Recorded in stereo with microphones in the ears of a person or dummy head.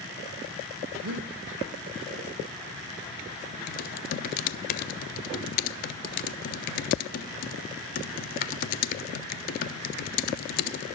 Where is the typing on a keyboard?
50° left (ahead or behind), 0.6 m.